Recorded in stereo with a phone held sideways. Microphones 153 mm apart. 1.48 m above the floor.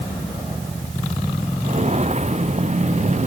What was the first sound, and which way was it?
Footsteps, 45° right (ahead or behind).